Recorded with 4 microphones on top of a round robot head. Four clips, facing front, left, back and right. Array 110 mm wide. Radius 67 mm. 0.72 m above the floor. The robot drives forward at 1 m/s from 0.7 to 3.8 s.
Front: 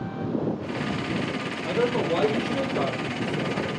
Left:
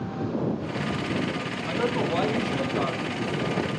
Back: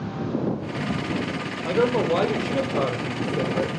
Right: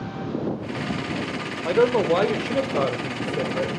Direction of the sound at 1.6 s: 95° right.